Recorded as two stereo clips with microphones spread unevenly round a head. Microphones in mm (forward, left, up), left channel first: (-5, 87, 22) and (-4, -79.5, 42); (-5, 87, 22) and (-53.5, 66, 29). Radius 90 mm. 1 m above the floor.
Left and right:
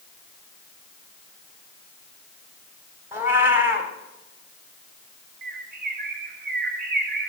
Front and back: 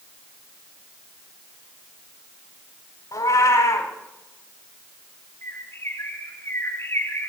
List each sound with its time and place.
3.1 s a cat meowing: 15° right, 1.7 m
5.4 s a bird: 50° right, 1.4 m